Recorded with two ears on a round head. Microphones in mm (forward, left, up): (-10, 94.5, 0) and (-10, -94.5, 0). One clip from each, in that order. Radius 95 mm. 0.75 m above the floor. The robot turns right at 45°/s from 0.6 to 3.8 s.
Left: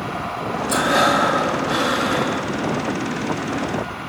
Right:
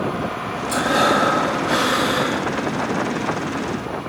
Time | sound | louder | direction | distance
0.7 | breathing | left 1 dB | 160° left | 1.2 m